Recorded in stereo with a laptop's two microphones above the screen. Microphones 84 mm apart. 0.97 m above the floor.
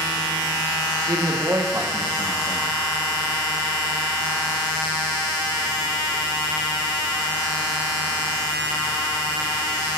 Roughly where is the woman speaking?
Right.